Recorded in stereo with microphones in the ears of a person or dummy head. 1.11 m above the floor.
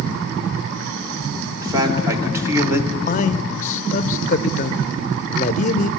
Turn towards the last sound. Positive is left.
turn(degrees=35)  # may be behind; listen again after turning